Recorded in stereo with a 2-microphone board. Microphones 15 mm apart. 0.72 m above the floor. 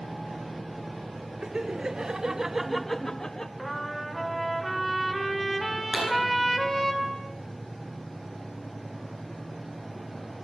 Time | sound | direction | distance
1.4 | laughter | 70° right (ahead or behind) | 1.6 m
3.6 | a trumpet | 5° right (ahead or behind) | 3 m
5.9 | a pop | 50° right (ahead or behind) | 9.5 m